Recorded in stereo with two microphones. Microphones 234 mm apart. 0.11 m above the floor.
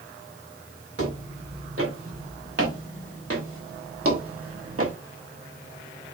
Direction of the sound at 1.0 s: 90° right.